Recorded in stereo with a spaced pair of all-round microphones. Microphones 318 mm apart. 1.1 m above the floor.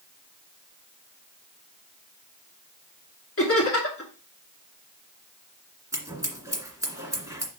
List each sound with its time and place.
3.4 s laughter: 45° left (ahead or behind), 2.5 m
5.9 s scissors: 10° right (ahead or behind), 1.9 m